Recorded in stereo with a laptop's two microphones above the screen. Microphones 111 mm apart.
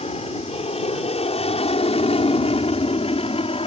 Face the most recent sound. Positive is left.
turn(degrees=60)  # may be behind; listen again after turning